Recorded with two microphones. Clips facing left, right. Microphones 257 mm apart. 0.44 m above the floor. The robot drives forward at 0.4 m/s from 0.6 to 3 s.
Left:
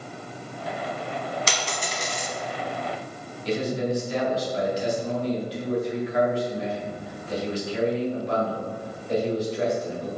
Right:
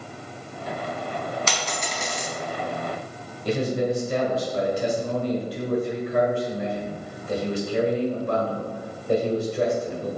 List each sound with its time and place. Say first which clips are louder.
1.5 s a dropped coin: even; 35° left (ahead or behind), 1.4 m; by 2.3 s 45° left (ahead or behind), 1.2 m
3.5 s a man speaking: right 2 dB; 55° right (ahead or behind), 1.5 m